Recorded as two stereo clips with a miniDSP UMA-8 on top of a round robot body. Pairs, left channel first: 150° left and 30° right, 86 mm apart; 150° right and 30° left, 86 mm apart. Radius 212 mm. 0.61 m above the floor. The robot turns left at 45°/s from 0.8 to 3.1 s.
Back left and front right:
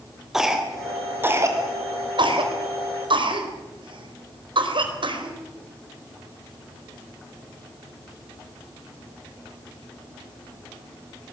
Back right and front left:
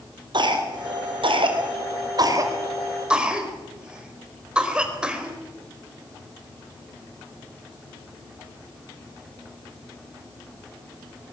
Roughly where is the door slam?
No door slam in this recording.